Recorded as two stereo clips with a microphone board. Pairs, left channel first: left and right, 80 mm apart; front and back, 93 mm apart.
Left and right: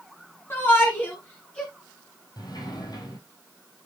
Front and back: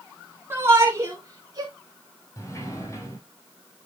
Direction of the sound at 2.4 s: 55° left.